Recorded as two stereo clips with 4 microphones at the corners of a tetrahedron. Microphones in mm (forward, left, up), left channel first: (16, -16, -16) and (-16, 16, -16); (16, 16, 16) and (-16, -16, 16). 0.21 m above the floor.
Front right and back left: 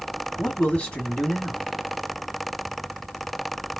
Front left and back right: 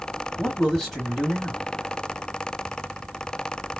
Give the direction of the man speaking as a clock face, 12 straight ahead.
1 o'clock.